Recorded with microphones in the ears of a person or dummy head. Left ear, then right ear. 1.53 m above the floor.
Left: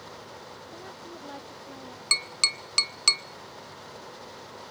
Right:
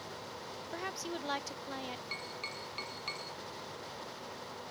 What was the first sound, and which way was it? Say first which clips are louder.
A woman speaking: right 7 dB; 60° right (ahead or behind).